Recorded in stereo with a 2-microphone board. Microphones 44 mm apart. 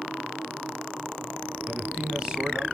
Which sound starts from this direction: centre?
A man speaking, at 1.7 s.